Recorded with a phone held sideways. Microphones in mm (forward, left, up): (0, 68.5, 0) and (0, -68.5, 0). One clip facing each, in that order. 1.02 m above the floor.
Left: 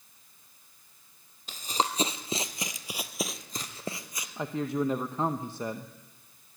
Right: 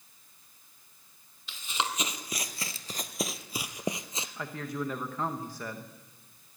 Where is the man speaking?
25° left (ahead or behind), 0.8 m.